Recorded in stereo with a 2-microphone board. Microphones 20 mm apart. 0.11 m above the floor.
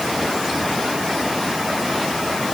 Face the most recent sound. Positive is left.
No sound to turn to.